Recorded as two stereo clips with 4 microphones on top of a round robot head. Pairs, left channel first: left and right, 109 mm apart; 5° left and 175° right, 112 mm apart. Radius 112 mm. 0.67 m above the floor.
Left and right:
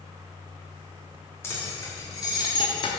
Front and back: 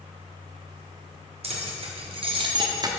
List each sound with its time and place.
1.4 s keys jangling: 160° left, 1.5 m; by 2.9 s 130° left, 1.0 m